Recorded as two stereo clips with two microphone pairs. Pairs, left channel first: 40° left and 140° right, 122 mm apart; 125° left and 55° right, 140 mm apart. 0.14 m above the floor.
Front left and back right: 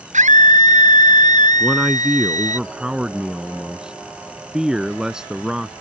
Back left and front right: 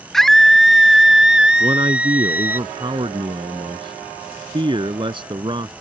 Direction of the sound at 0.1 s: 150° right.